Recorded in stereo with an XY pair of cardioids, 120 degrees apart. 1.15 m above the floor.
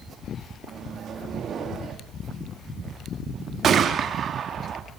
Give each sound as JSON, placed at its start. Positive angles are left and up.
{"t": 0.7, "sound": "a microwave", "azimuth_deg": -45, "distance_m": 1.8}
{"t": 3.6, "sound": "a gunshot", "azimuth_deg": -45, "distance_m": 1.3}